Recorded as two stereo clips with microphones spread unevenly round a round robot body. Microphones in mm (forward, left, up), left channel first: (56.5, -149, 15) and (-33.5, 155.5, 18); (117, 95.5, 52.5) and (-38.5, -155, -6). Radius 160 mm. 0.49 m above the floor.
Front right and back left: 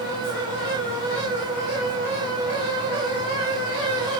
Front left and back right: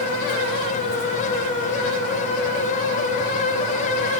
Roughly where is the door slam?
I don't hear a door slam.